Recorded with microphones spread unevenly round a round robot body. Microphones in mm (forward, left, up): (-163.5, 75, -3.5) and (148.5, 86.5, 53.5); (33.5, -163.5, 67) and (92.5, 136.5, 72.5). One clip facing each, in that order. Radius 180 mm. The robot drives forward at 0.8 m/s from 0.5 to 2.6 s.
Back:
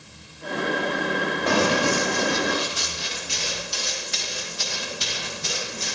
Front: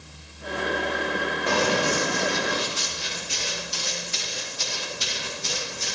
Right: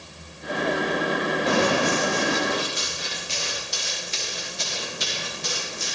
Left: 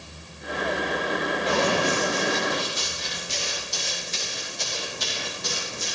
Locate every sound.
1.5 s running footsteps: 145° right, 5 m; by 6.0 s 135° right, 11.5 m